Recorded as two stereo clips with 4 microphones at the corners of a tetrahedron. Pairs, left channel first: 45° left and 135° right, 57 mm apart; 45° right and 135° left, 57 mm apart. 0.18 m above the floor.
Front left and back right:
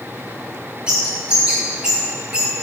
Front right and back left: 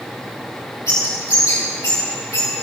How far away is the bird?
About 3 m.